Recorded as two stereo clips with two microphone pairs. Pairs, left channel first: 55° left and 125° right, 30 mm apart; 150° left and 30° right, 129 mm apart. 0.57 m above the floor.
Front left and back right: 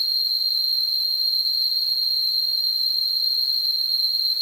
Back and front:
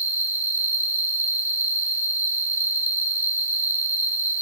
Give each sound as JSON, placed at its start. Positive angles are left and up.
{"t": 0.0, "sound": "an insect", "azimuth_deg": 170, "distance_m": 1.2}